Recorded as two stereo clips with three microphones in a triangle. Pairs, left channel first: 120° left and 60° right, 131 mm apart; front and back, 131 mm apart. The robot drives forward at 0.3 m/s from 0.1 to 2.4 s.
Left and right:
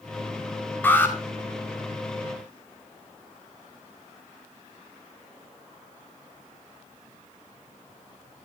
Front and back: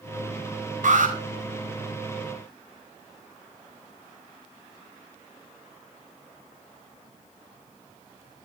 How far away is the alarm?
About 5.5 m.